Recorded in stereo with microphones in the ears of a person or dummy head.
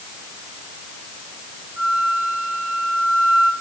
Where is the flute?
10° right (ahead or behind), 1.4 m.